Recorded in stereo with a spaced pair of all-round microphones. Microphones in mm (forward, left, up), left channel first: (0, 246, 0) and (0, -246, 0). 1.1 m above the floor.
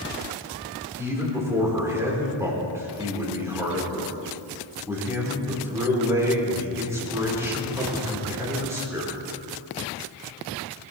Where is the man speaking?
5° right (ahead or behind), 4 m.